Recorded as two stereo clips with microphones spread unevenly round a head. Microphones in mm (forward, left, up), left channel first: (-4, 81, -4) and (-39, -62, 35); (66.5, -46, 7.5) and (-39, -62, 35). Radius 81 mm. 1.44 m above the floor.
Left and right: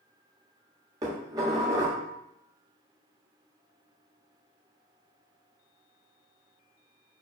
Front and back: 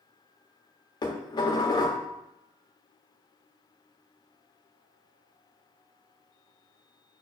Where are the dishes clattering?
45° right, 1.4 m.